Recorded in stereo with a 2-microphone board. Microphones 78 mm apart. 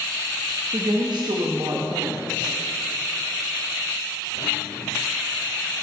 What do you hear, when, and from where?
0.7 s a woman speaking: 65° right (ahead or behind), 0.9 m